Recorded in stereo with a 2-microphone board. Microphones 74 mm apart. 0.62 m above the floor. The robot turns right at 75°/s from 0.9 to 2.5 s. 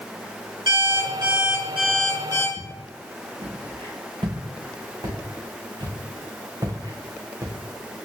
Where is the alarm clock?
70° right, 4 m; by 2.5 s 45° left, 4 m.